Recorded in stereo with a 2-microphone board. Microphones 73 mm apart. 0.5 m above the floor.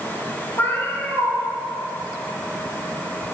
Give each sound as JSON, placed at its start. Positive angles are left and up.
{"t": 0.6, "sound": "a cat meowing", "side_deg": 35, "distance_m": 4.5}